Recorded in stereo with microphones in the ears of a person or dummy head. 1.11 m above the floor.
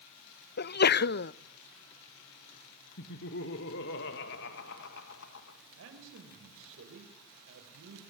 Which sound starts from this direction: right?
A man speaking, at 5.8 s.